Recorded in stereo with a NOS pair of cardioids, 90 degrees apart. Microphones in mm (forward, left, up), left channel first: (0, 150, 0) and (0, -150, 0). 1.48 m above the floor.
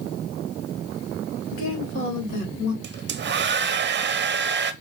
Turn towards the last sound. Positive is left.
turn(degrees=-35)